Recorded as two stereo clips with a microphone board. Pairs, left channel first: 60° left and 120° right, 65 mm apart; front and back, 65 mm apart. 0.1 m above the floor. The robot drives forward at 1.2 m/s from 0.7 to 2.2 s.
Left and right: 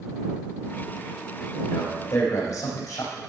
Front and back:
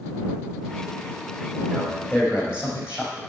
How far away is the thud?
No thud in this recording.